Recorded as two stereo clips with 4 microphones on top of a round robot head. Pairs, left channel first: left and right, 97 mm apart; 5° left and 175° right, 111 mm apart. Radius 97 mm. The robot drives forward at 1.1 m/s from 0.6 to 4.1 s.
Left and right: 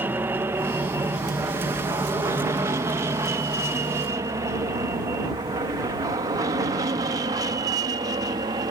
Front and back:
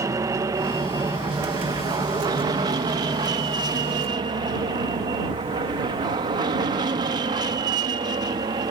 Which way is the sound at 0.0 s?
140° right.